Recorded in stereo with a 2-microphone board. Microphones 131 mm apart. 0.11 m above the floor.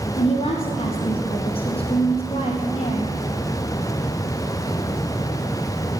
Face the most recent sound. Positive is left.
turn(degrees=50)  # may be behind; listen again after turning